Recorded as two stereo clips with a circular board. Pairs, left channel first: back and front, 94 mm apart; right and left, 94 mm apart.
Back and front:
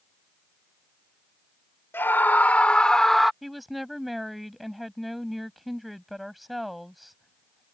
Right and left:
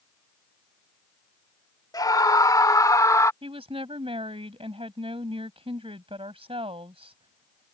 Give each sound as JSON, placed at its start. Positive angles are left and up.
{"t": 1.9, "sound": "a scream", "azimuth_deg": -120}
{"t": 3.4, "sound": "a woman speaking", "azimuth_deg": 90}